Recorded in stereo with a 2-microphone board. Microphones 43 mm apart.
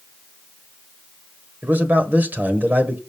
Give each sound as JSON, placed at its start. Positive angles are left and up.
{"t": 1.6, "sound": "a man speaking", "side_deg": -50, "distance_m": 1.5}